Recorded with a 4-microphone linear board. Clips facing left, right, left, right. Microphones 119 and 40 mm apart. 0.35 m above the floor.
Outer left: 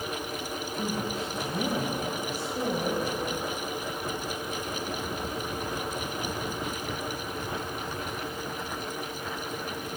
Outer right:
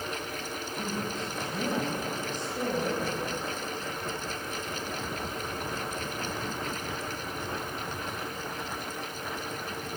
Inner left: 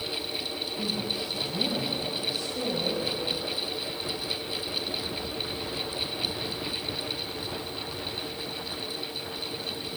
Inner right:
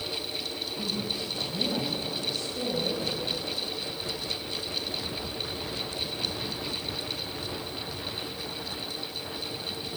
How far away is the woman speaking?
About 1.6 m.